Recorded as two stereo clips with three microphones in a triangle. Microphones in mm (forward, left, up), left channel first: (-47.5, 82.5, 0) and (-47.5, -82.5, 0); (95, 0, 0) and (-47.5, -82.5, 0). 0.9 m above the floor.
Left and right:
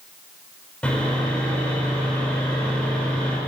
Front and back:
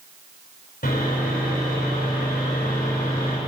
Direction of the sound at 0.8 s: 5° left.